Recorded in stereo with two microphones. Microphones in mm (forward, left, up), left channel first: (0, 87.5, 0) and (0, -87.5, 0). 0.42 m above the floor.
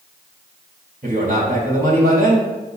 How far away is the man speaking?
About 2.5 m.